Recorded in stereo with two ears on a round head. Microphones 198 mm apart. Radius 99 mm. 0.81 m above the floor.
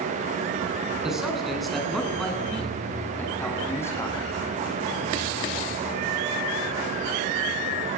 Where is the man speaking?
Centre (ahead or behind), 9 m; by 4.2 s 15° left (ahead or behind), 7.5 m.